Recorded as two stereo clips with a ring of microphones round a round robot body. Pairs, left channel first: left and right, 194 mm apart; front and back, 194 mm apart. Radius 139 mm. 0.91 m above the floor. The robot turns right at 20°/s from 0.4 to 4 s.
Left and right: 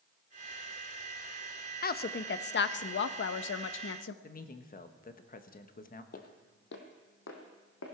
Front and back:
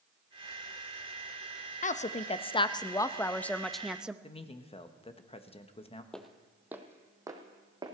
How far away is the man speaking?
About 1.3 m.